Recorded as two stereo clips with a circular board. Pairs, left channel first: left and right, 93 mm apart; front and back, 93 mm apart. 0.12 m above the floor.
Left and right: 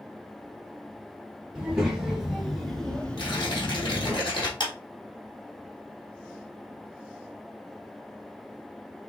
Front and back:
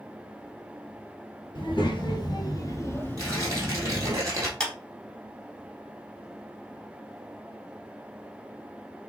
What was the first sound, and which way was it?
A child speaking, 10° right.